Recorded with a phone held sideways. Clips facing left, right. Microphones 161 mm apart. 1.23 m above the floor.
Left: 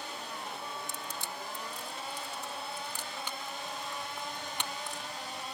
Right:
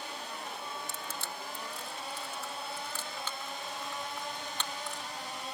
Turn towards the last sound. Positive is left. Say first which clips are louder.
# even
turn(degrees=15)  # may be behind; listen again after turning